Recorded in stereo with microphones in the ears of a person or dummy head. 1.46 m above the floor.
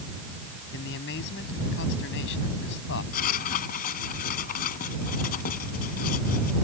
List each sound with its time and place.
0.7 s a man speaking: 65° left (ahead or behind)
3.1 s writing: 45° left (ahead or behind)